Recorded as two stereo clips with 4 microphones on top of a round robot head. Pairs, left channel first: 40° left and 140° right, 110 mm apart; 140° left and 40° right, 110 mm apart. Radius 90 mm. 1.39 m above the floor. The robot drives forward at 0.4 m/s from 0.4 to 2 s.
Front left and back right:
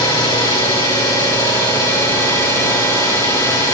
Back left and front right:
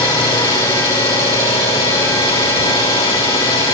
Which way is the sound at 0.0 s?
90° left.